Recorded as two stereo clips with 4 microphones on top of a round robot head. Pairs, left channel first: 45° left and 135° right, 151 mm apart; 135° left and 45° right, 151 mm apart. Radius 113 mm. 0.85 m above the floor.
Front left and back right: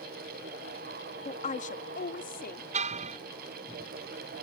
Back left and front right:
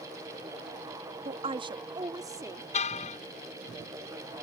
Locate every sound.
1.2 s a woman speaking: straight ahead; by 2.6 s 25° left
2.7 s a car horn: straight behind